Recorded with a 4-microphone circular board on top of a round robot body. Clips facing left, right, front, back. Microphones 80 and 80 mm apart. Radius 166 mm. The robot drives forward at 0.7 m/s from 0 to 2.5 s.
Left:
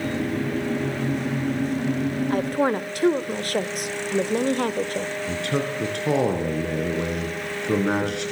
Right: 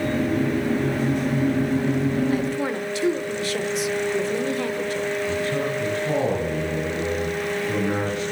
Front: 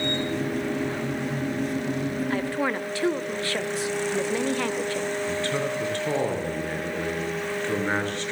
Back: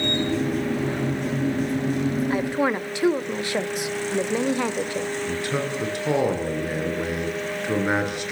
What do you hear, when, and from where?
2.3 s a woman speaking: 105° left, 1.8 m; by 5.1 s 110° left, 1.8 m
5.3 s a man speaking: 105° left, 7 m